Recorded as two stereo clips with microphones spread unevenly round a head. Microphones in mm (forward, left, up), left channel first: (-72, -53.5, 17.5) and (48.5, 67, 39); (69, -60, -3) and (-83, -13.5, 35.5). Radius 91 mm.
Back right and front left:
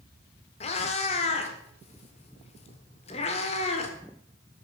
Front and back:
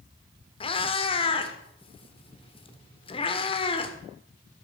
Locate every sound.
0.6 s a cat meowing: 80° right, 1.3 m